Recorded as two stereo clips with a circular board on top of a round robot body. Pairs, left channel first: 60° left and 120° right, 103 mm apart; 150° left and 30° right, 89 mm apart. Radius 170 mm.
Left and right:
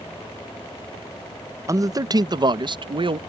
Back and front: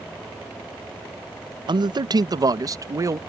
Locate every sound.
1.7 s a man speaking: 60° right; by 3.2 s 85° right